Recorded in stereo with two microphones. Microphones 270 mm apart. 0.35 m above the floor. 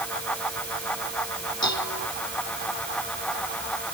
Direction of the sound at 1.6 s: 75° left (ahead or behind).